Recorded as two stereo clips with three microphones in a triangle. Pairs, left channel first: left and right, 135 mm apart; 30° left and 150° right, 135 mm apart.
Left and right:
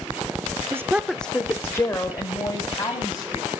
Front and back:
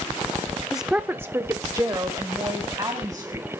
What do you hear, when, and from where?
0.7 s a woman speaking: 65° right, 0.8 m; by 3.5 s 145° left, 3 m